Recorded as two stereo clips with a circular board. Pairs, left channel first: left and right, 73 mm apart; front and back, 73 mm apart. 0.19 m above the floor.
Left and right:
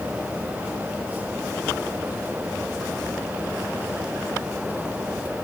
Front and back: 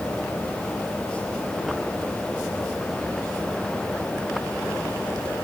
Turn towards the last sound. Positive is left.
No sound to turn to.